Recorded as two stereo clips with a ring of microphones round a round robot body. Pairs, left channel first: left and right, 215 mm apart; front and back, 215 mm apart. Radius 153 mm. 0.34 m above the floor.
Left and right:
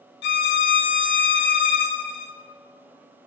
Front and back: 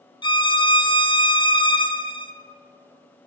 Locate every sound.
0.2 s a violin: 65° left, 0.7 m